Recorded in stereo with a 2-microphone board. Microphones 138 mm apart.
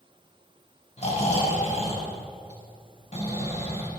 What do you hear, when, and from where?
1.0 s snoring: 50° left (ahead or behind), 4.5 m